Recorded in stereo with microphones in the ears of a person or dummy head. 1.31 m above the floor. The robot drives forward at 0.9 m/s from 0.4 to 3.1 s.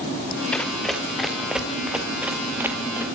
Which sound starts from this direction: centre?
Running footsteps, at 0.5 s.